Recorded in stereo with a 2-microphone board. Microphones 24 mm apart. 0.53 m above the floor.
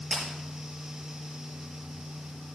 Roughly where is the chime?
I don't hear a chime.